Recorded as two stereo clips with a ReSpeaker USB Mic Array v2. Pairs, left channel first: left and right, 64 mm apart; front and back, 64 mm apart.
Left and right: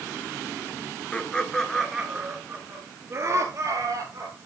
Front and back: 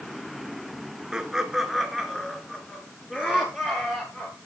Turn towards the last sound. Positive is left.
turn(degrees=-65)